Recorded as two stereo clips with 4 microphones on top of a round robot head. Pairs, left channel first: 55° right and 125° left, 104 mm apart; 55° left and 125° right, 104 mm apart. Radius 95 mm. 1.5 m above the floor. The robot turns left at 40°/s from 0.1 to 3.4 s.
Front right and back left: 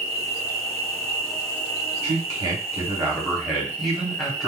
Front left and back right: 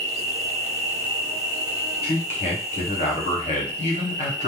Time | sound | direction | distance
0.0 | an insect | 100° right | 1.2 m
2.0 | a man speaking | 90° left | 1.1 m